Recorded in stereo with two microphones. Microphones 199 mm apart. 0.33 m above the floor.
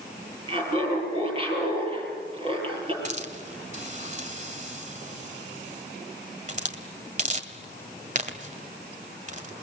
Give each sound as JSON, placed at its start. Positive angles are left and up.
{"t": 0.5, "sound": "laughter", "side_deg": -30, "distance_m": 8.5}
{"t": 3.0, "sound": "a hiss", "side_deg": -40, "distance_m": 1.6}